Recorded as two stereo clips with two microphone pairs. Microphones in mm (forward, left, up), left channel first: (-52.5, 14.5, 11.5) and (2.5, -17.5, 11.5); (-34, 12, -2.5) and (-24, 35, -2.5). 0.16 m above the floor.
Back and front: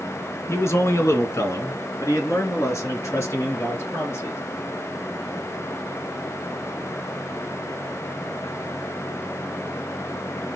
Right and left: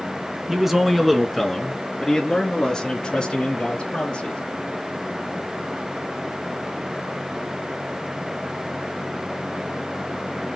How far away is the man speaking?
About 1.7 m.